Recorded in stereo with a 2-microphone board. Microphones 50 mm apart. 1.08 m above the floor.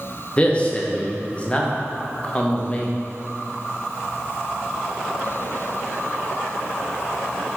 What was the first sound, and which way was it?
A man speaking, 25° left (ahead or behind).